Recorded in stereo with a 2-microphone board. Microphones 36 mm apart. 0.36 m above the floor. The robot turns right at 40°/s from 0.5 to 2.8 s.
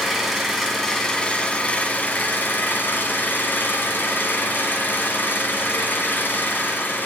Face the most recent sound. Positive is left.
turn(degrees=85)